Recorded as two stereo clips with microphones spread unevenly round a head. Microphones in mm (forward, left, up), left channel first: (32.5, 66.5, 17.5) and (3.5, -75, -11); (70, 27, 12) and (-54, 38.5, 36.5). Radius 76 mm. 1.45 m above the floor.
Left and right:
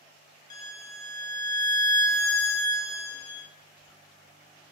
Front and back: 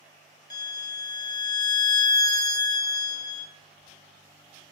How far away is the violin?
About 0.6 m.